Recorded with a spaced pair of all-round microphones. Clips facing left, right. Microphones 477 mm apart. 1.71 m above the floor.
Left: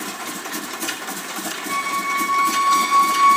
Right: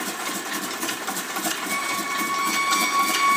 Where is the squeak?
20° right (ahead or behind), 0.7 m.